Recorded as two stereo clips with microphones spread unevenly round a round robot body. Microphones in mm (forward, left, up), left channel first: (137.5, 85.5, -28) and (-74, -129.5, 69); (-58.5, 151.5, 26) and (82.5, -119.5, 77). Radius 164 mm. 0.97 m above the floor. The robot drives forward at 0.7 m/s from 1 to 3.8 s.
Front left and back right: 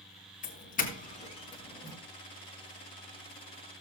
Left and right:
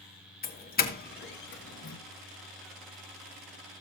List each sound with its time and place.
0.4 s a doorbell: 80° left, 1.8 m; by 2.0 s 105° left, 1.9 m